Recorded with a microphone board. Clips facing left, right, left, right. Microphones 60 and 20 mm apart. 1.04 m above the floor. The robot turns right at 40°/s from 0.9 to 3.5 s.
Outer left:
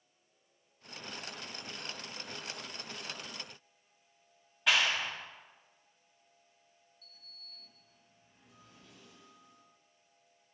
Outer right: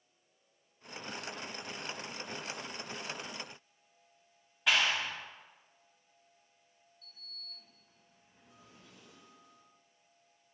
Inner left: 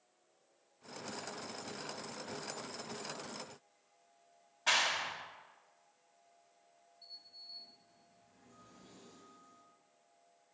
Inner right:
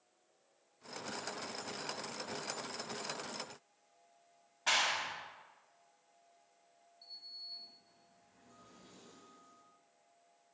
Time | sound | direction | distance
4.7 | a clap | centre (ahead or behind) | 1.7 m
7.0 | a sliding door | 40° right (ahead or behind) | 4.5 m